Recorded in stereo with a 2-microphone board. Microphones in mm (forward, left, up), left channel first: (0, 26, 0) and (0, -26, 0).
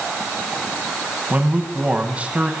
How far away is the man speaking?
About 4 m.